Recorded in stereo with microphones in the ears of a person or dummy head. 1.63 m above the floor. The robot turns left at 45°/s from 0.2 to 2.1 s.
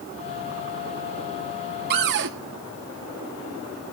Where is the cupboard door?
55° right (ahead or behind), 1.7 m; by 2.3 s 60° right (ahead or behind), 1.7 m.